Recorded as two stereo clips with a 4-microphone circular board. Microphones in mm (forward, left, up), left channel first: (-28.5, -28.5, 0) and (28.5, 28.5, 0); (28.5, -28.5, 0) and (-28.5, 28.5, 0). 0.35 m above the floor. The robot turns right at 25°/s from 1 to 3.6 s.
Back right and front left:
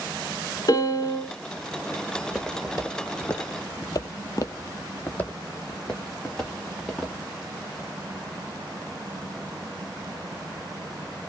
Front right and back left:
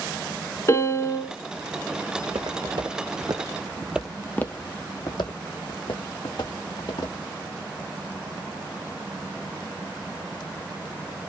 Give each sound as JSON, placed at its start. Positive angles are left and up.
{"t": 0.7, "sound": "a piano", "azimuth_deg": -100, "distance_m": 0.6}
{"t": 2.2, "sound": "footsteps", "azimuth_deg": 120, "distance_m": 1.4}